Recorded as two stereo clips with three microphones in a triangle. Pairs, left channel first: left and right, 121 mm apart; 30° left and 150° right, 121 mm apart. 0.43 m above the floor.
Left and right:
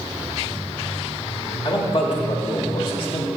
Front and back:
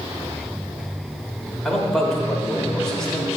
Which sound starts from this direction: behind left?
A man speaking, at 1.6 s.